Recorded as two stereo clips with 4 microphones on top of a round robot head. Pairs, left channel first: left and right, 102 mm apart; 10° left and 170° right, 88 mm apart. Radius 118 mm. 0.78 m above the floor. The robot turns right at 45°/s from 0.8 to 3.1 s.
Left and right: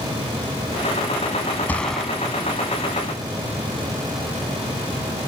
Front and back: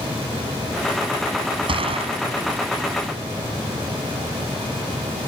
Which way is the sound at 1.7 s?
165° left.